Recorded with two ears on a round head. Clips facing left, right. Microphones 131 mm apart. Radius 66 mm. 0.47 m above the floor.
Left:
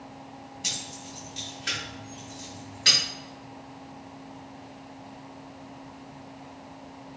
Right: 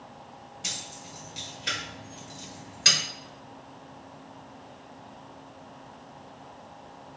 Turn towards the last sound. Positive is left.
turn(degrees=-55)  # may be behind; listen again after turning